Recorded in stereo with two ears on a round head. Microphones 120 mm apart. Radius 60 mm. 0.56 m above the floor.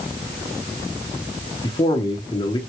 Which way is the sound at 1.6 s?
35° left (ahead or behind).